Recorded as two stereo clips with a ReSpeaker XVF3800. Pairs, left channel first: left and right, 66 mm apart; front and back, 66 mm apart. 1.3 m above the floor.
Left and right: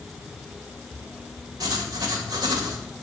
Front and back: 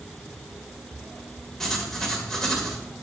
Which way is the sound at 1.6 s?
85° right.